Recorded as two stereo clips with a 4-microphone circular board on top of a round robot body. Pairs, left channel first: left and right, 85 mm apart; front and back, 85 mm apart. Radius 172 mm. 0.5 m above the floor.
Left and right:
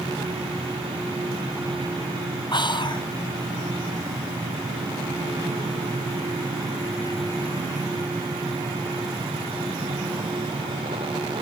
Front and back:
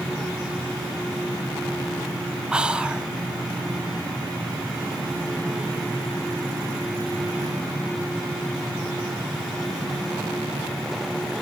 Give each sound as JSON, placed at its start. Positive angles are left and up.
{"t": 2.5, "sound": "whispering", "azimuth_deg": 100, "distance_m": 1.6}